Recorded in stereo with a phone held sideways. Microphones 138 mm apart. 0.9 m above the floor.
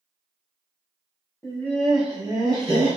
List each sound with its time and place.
1.4 s laughter: 20° left (ahead or behind), 0.9 m; by 3.0 s 50° right (ahead or behind), 1.2 m